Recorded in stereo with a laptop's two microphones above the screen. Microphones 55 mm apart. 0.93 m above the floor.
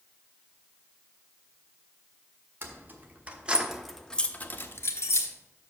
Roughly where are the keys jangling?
Right.